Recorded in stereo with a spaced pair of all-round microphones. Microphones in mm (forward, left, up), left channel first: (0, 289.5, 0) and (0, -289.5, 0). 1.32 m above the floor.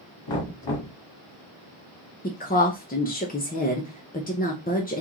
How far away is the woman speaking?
About 0.6 m.